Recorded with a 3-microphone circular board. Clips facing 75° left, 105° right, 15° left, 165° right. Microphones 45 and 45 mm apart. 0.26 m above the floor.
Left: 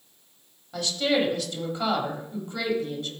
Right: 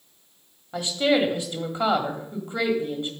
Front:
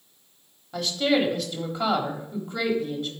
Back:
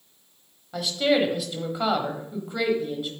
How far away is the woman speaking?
About 1.4 m.